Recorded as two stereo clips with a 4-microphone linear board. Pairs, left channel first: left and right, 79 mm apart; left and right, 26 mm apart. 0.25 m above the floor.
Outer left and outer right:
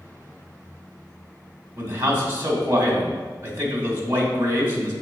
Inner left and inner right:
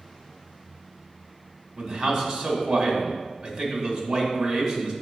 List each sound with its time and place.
1.8 s a man speaking: 25° right (ahead or behind), 1.8 m